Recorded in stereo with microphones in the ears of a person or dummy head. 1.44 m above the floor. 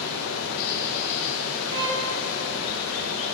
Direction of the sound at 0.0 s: 65° left (ahead or behind).